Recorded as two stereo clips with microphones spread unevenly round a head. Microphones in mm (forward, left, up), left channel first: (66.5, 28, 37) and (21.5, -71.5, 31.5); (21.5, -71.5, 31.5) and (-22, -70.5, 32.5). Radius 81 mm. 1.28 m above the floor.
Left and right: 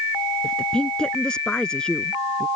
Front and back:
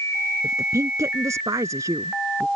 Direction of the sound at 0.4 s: 150° left.